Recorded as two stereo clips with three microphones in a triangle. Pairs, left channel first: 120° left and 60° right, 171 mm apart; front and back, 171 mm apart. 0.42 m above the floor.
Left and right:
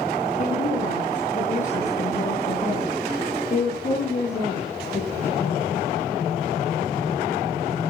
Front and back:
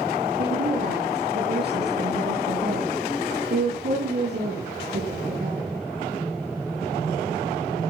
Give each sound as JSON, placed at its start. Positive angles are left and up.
{"t": 0.4, "sound": "a woman speaking", "azimuth_deg": 165, "distance_m": 8.5}